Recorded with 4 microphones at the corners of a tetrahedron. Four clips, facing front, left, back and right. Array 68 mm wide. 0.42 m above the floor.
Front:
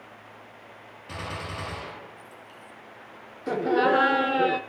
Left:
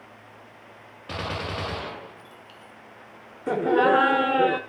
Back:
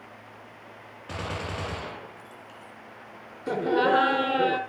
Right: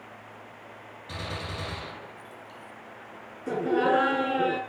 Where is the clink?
No clink in this recording.